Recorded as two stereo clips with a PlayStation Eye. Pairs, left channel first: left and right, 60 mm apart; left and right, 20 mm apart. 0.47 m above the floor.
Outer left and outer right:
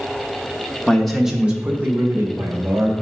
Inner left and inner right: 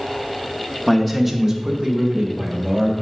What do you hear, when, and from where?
0.9 s a man speaking: 15° left (ahead or behind), 0.9 m; by 2.9 s 45° right (ahead or behind), 2 m